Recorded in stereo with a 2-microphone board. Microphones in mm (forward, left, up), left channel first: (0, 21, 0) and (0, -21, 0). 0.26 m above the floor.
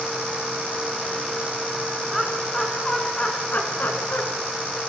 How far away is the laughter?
About 3 m.